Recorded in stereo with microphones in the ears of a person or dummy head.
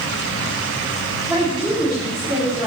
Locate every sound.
1.3 s a woman speaking: 10° right (ahead or behind), 3 m